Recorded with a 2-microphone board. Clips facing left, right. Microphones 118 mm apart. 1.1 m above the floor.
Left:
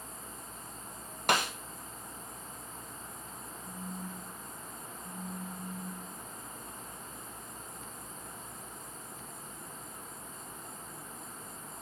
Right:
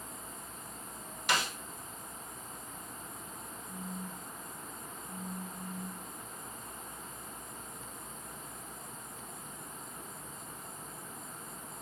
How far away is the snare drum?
About 1.4 m.